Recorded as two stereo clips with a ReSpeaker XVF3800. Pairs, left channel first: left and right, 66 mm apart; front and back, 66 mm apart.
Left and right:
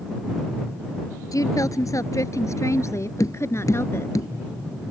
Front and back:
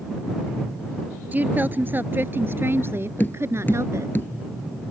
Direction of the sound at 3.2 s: 60° left.